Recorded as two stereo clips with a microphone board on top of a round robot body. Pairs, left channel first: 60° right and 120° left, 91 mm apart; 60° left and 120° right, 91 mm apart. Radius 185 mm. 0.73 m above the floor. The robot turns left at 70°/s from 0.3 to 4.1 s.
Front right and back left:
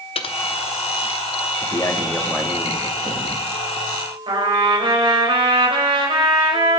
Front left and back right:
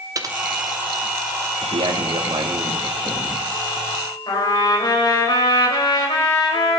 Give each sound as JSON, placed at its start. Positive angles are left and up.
{"t": 0.1, "sound": "typing on a keyboard", "azimuth_deg": -70, "distance_m": 1.2}
{"t": 1.6, "sound": "a man speaking", "azimuth_deg": -95, "distance_m": 2.5}
{"t": 4.3, "sound": "a trumpet", "azimuth_deg": 95, "distance_m": 4.5}